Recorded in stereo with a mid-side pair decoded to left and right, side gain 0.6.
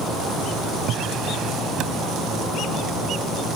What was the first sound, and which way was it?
A drawer, 60° right.